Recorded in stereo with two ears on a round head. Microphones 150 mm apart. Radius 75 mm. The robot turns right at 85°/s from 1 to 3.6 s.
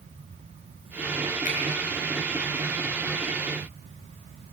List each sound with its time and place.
1.4 s a finger snap: 50° left (ahead or behind), 6 m; by 1.6 s 60° left (ahead or behind), 6 m